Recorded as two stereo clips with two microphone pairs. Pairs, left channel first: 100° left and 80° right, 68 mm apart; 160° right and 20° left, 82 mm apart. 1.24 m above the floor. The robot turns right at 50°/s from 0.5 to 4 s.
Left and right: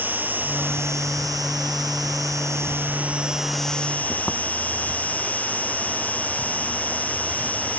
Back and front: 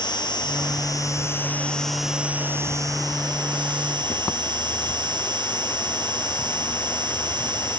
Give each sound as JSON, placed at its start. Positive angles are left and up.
{"t": 0.0, "sound": "an insect", "azimuth_deg": -145}